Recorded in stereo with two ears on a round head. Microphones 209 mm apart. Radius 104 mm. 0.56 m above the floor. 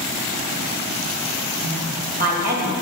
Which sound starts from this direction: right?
A woman speaking, at 1.6 s.